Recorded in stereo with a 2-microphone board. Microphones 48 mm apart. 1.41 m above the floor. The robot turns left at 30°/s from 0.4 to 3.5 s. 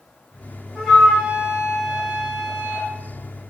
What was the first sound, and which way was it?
A flute, 5° left.